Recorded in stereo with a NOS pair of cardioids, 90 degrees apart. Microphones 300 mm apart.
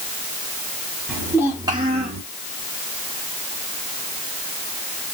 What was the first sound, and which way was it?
A child speaking, 5° right.